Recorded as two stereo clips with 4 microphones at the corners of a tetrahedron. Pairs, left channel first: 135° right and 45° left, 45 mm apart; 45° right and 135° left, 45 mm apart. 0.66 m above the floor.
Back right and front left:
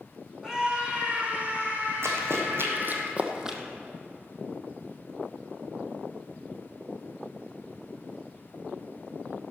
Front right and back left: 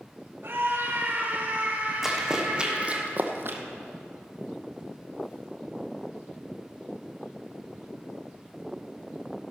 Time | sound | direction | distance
0.4 | a scream | 125° left | 2 m
2.0 | running footsteps | 55° left | 2 m